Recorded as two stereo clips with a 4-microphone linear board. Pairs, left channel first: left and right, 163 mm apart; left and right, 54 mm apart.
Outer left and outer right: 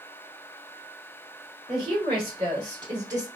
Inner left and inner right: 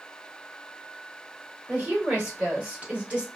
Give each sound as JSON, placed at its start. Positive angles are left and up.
{"t": 1.7, "sound": "a woman speaking", "side_deg": -40, "distance_m": 1.9}